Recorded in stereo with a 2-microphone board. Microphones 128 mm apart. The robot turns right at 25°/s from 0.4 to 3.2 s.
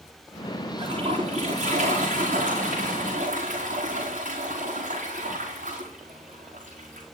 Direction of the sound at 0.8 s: 140° right.